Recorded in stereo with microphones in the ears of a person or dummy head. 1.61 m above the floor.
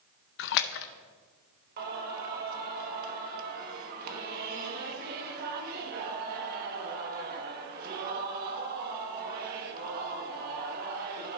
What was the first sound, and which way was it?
A splash, 70° left (ahead or behind).